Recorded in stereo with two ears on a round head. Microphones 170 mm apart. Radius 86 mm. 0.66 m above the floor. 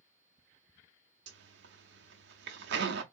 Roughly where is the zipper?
Right.